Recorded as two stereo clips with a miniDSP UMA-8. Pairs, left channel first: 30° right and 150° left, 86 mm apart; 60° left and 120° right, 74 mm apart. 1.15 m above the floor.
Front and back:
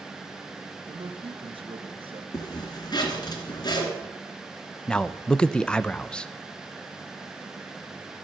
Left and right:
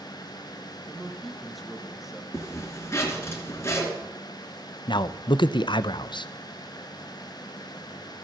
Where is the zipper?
5° left, 3 m.